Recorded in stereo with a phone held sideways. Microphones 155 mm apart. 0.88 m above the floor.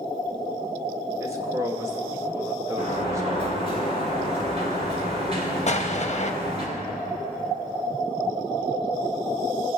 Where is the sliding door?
40° right (ahead or behind), 3.5 m.